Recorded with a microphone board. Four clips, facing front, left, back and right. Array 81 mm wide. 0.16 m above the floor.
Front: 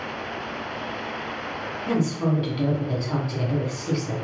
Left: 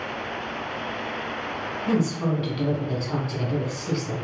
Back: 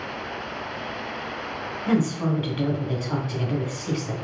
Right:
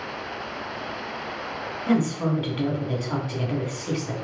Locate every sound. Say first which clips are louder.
1.9 s a woman speaking: right 1 dB, back 1 dB; 130° right, 1.1 m